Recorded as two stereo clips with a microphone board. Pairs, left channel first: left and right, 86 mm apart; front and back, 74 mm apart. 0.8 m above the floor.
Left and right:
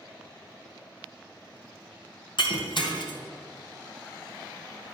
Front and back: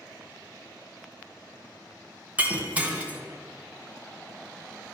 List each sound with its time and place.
2.4 s breaking glass: 110° left, 2.5 m